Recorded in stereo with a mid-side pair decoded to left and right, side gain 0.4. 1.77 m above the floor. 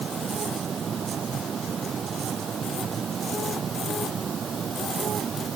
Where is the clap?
I don't hear a clap.